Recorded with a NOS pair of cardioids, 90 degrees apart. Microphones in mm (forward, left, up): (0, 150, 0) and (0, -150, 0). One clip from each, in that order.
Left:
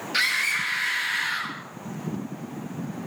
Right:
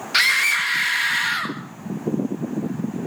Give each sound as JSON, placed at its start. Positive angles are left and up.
{"t": 0.1, "sound": "a scream", "azimuth_deg": -45, "distance_m": 3.5}